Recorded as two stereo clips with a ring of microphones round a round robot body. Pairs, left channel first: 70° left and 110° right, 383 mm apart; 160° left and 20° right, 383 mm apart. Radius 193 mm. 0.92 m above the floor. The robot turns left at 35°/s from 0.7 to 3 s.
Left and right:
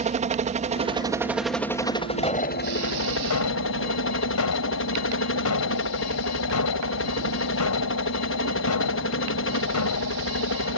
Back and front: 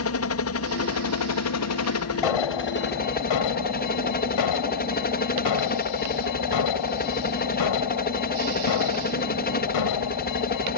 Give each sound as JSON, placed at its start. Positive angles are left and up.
{"t": 0.0, "sound": "a helicopter", "azimuth_deg": -175}
{"t": 2.2, "sound": "an alarm", "azimuth_deg": 145}